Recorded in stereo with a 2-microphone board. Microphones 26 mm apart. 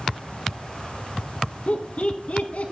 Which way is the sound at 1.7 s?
60° left (ahead or behind).